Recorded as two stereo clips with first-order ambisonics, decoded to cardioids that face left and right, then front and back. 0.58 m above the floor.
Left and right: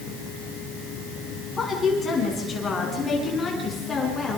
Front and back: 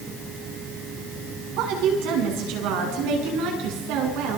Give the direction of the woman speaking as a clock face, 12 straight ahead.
7 o'clock.